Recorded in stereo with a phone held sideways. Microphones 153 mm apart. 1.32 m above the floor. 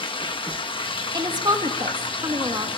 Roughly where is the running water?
Left.